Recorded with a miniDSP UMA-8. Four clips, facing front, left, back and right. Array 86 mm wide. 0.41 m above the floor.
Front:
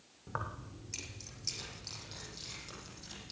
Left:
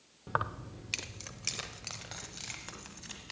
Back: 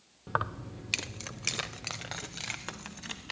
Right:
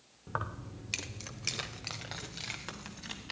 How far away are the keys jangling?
About 0.5 m.